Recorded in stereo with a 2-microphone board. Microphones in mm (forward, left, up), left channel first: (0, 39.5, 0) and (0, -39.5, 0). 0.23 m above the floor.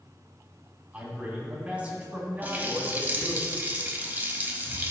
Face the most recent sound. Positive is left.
turn(degrees=-25)  # may be behind; listen again after turning